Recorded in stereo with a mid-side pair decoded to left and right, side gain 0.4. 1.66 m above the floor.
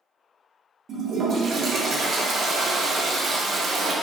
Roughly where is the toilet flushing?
Ahead right.